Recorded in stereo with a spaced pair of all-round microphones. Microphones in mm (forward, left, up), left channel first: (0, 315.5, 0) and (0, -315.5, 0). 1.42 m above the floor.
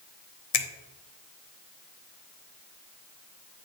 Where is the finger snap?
65° left (ahead or behind), 0.8 m.